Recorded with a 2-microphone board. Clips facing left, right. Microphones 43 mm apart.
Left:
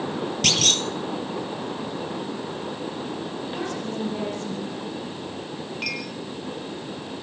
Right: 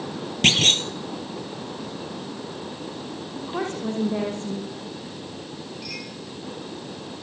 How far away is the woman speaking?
About 6.5 m.